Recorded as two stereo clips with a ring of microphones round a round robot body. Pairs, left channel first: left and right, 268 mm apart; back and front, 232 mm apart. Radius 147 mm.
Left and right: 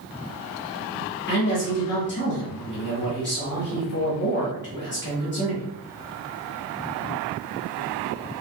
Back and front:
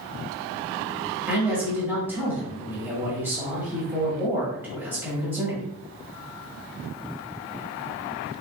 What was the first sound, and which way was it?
A man speaking, 75° left.